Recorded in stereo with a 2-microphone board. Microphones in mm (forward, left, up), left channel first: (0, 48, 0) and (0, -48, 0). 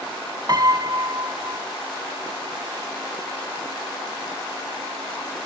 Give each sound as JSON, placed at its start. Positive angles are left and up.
{"t": 0.5, "sound": "a piano", "side_deg": -45, "distance_m": 0.8}